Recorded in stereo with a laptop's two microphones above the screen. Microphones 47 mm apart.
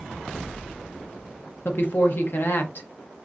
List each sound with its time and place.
1.6 s a woman speaking: 45° left (ahead or behind), 0.6 m